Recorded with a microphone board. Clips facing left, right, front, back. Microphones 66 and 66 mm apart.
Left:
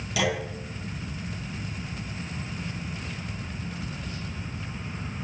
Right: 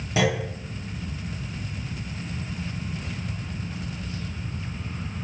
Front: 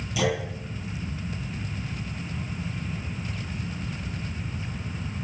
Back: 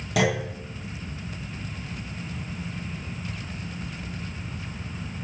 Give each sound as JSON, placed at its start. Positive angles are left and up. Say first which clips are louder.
{"t": 0.2, "sound": "a clunk", "louder": "right 3 dB, back 3 dB", "azimuth_deg": -150, "distance_m": 9.5}